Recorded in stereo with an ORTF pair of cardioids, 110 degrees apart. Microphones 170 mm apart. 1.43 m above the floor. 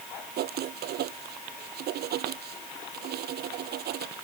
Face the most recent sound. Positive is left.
turn(degrees=-70)